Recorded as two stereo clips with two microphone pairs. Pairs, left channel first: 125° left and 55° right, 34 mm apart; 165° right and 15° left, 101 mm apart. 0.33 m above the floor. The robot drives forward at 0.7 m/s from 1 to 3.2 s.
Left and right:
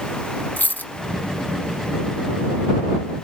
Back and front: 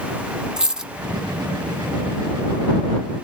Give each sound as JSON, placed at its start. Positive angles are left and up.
{"t": 0.6, "sound": "a dropped coin", "azimuth_deg": 100, "distance_m": 0.7}